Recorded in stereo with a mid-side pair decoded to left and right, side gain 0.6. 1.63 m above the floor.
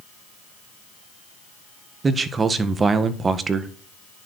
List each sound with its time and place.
2.0 s a man speaking: 25° right, 1.9 m